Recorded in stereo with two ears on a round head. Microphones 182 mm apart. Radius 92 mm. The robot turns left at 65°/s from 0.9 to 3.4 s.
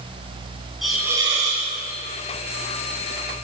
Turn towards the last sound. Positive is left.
turn(degrees=-165)